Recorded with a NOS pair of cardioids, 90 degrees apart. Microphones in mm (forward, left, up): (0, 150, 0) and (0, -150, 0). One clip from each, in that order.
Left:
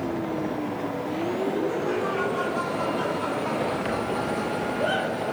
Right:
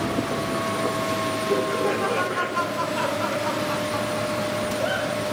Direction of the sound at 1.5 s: 60° right.